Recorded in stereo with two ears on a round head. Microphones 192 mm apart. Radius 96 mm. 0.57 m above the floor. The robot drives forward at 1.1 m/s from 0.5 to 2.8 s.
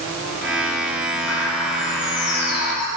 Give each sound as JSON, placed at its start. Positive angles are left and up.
{"t": 1.3, "sound": "a bird", "side_deg": 75, "distance_m": 2.5}